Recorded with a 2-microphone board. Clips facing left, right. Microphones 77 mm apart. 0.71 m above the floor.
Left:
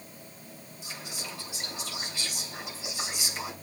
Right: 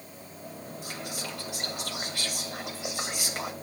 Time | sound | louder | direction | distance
0.8 | whispering | right 3 dB | 60° right (ahead or behind) | 3.5 m